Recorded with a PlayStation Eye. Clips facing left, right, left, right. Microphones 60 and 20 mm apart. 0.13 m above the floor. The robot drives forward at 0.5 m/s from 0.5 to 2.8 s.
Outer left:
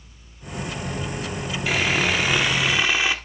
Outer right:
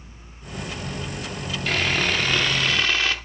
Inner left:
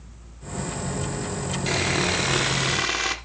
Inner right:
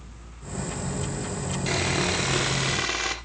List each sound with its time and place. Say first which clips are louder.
1.7 s sawing: outer left 1 dB, inner left 2 dB; 10° left (ahead or behind), 1.4 m; by 3.1 s 15° left (ahead or behind), 1.0 m